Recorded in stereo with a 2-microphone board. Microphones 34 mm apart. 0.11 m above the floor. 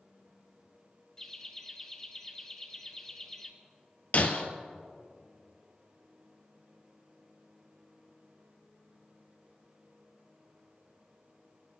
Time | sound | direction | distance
1.2 | laughter | 15° left (ahead or behind) | 1.1 m
4.1 | breaking glass | 45° left (ahead or behind) | 1.5 m